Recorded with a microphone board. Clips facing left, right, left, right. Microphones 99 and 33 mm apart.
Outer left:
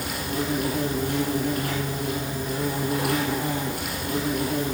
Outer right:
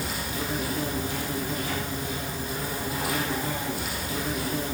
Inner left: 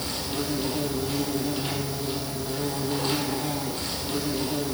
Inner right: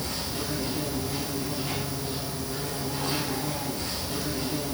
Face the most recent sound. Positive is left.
turn(degrees=65)  # may be behind; listen again after turning